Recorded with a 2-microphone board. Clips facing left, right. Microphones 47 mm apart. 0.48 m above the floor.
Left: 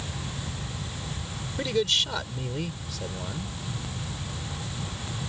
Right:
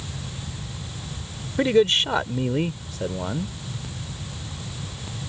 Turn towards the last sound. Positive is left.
turn(degrees=-30)  # may be behind; listen again after turning